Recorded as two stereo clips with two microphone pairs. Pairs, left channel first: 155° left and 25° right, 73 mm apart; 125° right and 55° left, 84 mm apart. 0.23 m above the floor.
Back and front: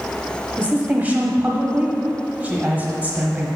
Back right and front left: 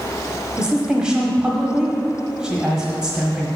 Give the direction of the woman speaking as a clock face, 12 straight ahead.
12 o'clock.